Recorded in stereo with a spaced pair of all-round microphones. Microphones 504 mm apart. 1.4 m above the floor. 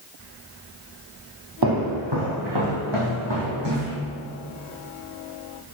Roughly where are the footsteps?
Right.